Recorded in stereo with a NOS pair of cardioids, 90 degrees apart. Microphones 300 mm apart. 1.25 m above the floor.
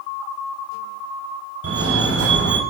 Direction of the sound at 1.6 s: 50° right.